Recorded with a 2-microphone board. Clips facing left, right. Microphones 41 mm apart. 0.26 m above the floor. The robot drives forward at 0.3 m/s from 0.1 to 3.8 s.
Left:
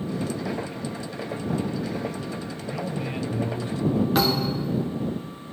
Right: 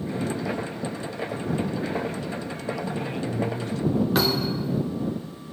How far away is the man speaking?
About 2.5 m.